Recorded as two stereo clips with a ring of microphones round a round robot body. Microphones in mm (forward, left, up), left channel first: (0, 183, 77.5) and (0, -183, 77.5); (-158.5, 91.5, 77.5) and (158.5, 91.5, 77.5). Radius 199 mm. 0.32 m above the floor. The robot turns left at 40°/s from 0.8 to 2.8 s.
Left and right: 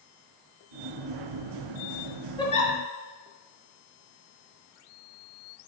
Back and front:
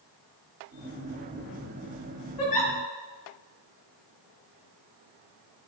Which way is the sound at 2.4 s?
170° left.